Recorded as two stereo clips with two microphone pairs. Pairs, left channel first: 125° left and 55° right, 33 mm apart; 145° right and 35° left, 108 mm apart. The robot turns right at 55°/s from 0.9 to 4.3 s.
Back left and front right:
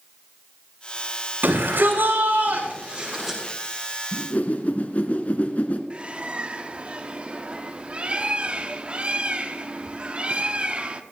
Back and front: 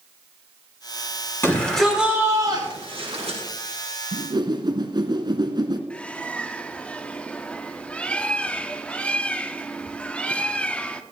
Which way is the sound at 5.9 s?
75° right.